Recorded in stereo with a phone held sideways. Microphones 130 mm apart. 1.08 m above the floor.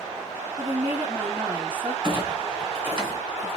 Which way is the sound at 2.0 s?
45° right (ahead or behind).